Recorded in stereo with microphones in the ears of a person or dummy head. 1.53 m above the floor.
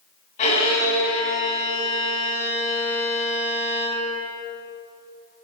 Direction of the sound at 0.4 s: 45° left (ahead or behind).